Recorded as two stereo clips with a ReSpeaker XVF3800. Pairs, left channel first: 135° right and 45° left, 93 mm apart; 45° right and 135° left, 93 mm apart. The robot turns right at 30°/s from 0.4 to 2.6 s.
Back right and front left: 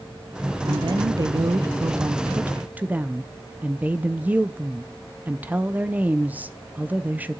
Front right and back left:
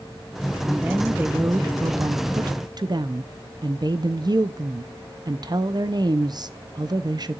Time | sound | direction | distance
0.7 | a woman speaking | 55° left | 0.5 m